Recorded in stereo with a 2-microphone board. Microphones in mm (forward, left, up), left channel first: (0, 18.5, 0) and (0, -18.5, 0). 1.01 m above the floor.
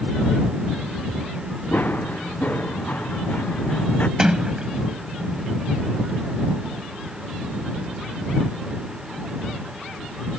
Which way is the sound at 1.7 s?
60° left (ahead or behind).